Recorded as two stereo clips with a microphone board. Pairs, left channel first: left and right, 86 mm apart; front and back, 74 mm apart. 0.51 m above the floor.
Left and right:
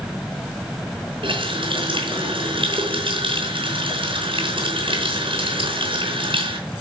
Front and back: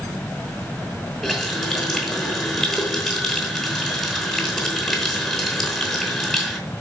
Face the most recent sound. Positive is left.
turn(degrees=-90)